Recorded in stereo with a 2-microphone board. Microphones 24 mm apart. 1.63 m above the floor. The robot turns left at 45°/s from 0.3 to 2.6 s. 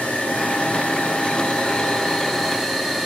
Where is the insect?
105° left, 4 m; by 3.1 s straight ahead, 4 m.